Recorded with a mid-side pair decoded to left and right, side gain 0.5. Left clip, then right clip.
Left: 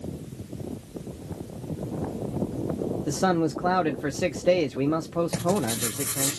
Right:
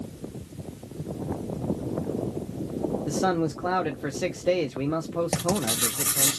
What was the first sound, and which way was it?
A man speaking, 15° left.